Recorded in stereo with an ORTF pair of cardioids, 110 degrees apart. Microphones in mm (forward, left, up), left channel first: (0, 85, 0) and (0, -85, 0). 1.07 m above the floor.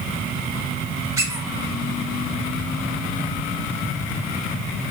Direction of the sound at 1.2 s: 15° right.